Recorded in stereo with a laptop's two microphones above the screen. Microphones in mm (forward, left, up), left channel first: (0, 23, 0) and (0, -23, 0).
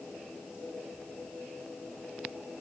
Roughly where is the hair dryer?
I don't hear a hair dryer.